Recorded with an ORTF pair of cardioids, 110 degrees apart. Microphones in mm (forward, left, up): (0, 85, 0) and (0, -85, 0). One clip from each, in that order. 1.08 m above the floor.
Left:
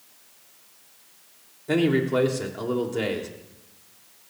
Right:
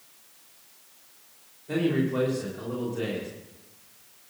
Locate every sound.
1.7 s a man speaking: 60° left, 3.5 m